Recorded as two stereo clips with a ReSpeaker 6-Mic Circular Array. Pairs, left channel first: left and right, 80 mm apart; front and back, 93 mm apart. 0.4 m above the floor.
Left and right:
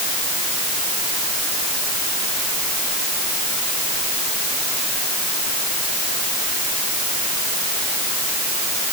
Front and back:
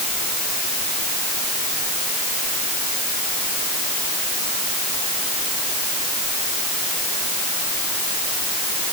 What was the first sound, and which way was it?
Only background noise.